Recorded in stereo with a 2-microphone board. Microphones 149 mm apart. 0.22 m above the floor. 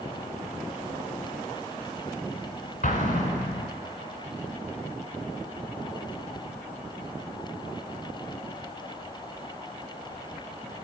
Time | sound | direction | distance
2.8 | an explosion | 65° left (ahead or behind) | 1.0 m